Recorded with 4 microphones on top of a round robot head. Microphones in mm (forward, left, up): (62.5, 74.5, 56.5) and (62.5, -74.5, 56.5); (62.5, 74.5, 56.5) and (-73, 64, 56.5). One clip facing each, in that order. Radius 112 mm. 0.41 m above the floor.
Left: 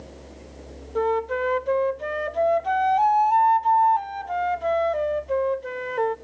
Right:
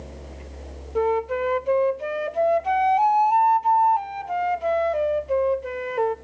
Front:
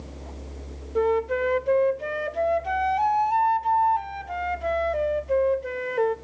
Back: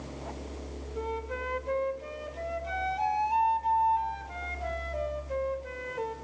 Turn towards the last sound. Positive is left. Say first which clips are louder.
# right 1 dB, front 13 dB
turn(degrees=-10)